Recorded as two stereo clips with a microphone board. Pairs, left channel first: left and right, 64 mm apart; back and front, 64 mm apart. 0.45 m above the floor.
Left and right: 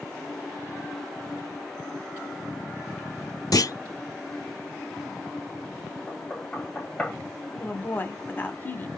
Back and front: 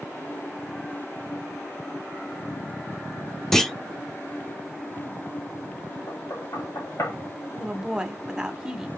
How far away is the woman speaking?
About 1.2 m.